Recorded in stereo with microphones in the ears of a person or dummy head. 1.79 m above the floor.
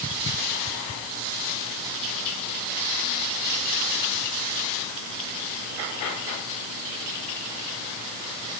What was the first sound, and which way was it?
Only background noise.